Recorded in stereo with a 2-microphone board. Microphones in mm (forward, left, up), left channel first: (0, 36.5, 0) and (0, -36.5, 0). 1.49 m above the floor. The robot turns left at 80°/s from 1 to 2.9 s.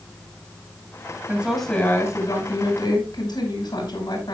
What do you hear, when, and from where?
1.3 s a woman speaking: 160° right, 5.5 m; by 4.3 s 70° left, 5.5 m